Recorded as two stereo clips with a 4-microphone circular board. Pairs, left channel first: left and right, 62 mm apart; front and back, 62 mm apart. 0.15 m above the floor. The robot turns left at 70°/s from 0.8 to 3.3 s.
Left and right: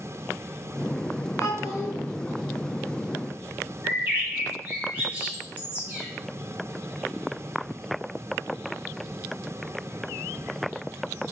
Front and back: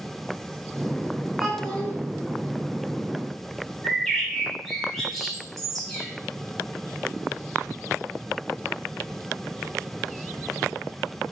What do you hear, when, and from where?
1.4 s a child speaking: 90° left, 2.0 m; by 1.9 s 55° left, 2.0 m
3.8 s a bird: 85° right, 1.9 m